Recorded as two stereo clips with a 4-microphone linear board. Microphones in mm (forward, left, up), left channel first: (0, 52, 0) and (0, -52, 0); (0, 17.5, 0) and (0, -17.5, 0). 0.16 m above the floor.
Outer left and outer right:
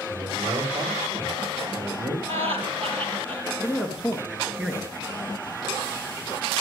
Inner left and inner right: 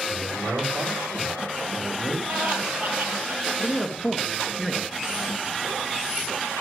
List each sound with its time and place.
0.1 s a man speaking: 55° right (ahead or behind), 7 m; by 2.2 s 65° right (ahead or behind), 8 m
2.3 s laughter: 70° right (ahead or behind), 4 m
3.6 s a man speaking: 10° right (ahead or behind), 2.5 m